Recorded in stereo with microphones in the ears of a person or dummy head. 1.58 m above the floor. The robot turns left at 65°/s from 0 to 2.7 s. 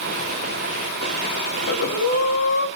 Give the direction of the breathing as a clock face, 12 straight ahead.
8 o'clock.